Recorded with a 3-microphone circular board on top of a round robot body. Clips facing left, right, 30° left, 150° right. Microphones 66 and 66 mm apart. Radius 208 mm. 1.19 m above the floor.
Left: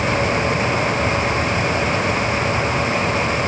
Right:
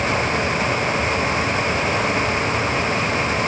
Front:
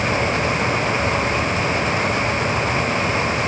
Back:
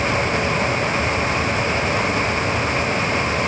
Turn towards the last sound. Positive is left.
No sound to turn to.